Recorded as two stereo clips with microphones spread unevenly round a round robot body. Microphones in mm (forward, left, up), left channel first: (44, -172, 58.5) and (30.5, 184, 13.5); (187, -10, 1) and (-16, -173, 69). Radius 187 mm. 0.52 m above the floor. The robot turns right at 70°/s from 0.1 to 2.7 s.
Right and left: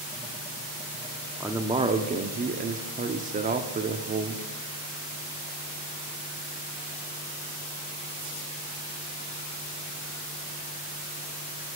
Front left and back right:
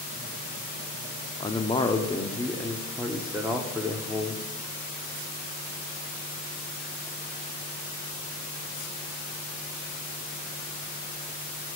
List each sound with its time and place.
1.4 s a man speaking: 20° left, 0.7 m; by 4.4 s 110° left, 0.7 m